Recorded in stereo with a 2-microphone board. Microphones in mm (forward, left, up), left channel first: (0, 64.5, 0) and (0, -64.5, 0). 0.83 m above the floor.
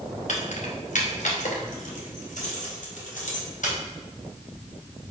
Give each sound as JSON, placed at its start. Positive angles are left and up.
{"t": 0.3, "sound": "keys jangling", "side_deg": 70, "distance_m": 2.5}